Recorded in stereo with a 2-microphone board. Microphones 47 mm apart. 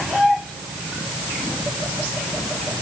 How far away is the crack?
I don't hear a crack.